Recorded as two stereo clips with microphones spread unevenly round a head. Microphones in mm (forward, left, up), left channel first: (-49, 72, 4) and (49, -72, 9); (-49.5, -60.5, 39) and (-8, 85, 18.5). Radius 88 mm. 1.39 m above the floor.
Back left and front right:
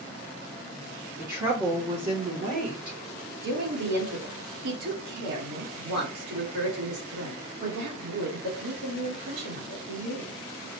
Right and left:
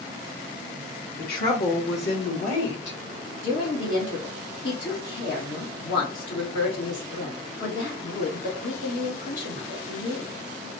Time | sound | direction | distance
1.2 | a woman speaking | 130° right | 1.3 m
3.4 | a woman speaking | 60° right | 3 m